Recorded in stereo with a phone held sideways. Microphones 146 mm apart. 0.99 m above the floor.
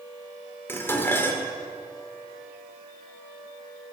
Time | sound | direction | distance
0.7 | dishes clattering | 15° left (ahead or behind) | 1.7 m